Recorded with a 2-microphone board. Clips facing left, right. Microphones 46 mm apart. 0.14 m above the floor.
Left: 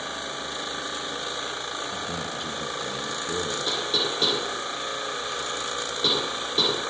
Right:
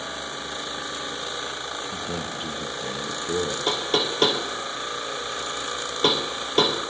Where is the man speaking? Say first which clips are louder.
Right 1 dB; 25° right (ahead or behind), 1.6 m.